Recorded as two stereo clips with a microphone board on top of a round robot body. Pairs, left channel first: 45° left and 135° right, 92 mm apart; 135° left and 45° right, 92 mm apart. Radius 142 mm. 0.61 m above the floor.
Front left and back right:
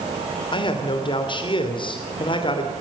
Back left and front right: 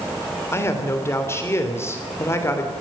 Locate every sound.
0.5 s a man speaking: 75° left, 3 m